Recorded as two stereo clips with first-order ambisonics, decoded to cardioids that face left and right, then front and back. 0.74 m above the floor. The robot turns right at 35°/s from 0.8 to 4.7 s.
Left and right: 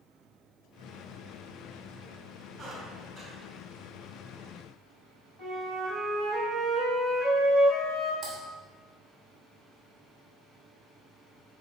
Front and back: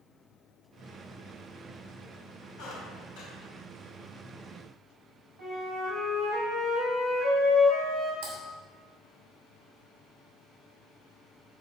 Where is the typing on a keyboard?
170° right, 2.5 m.